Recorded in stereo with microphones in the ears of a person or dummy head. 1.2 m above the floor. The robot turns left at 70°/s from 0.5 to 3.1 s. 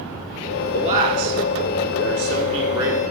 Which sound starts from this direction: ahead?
A man speaking, at 0.7 s.